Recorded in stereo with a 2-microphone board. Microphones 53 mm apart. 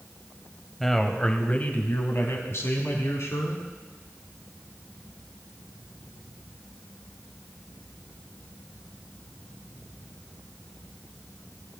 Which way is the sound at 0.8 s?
5° left (ahead or behind).